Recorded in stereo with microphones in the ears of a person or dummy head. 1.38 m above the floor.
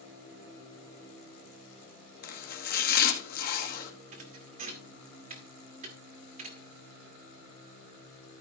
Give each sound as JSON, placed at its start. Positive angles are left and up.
{"t": 2.2, "sound": "chopping", "side_deg": 50, "distance_m": 1.3}
{"t": 4.1, "sound": "a thud", "side_deg": -45, "distance_m": 1.3}